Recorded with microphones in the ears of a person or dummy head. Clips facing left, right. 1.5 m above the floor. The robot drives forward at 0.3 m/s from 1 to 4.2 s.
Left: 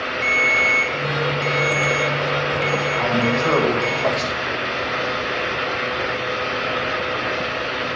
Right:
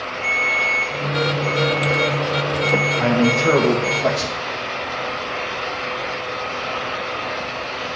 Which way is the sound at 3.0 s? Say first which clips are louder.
Right 4 dB; 20° right (ahead or behind).